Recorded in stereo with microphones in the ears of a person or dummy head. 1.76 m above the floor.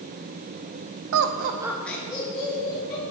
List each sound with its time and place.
1.1 s laughter: 70° right (ahead or behind), 0.7 m; by 3.0 s 35° left (ahead or behind), 2.5 m